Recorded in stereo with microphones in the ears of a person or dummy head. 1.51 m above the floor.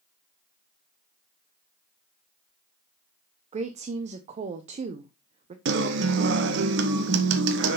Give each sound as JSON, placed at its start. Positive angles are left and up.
{"t": 3.5, "sound": "a woman speaking", "side_deg": -40, "distance_m": 0.7}
{"t": 5.7, "sound": "a guitar", "side_deg": -70, "distance_m": 1.1}